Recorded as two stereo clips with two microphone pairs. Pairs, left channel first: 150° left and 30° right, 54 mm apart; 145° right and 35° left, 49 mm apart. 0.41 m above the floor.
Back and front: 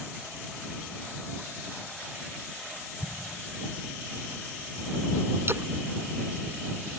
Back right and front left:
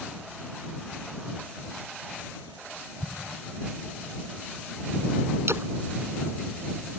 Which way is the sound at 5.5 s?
15° left.